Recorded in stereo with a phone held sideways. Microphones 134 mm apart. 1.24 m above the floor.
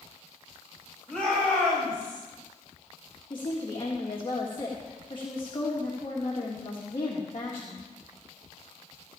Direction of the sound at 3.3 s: 40° left (ahead or behind).